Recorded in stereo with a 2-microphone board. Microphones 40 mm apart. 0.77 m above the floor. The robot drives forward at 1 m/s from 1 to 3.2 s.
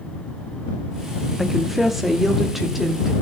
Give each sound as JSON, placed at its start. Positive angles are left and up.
{"t": 1.4, "sound": "a woman speaking", "side_deg": -5, "distance_m": 1.5}